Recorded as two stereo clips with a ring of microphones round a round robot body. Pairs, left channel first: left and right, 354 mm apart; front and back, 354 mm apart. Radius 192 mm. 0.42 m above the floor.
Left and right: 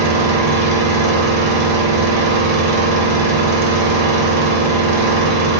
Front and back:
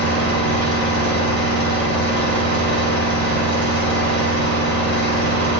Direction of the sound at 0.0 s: 125° right.